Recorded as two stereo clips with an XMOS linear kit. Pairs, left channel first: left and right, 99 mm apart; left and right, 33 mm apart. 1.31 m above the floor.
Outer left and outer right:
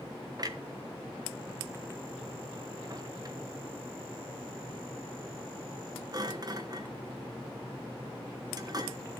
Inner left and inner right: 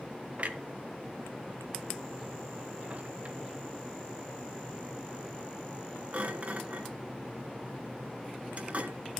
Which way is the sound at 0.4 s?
40° right (ahead or behind).